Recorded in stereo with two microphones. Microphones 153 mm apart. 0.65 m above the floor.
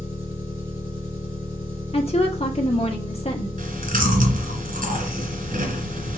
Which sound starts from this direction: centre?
An engine running, at 0.0 s.